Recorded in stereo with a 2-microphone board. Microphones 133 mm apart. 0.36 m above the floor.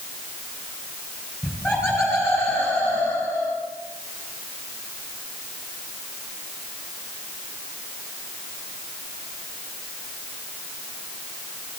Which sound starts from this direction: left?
Laughter, at 1.4 s.